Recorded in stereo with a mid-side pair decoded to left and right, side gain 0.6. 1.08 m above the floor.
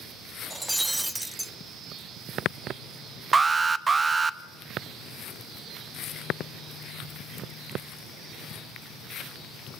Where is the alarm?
25° right, 0.7 m.